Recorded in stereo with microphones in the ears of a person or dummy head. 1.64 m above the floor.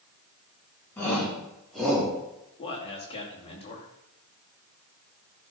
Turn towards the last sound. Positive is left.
turn(degrees=35)  # may be behind; listen again after turning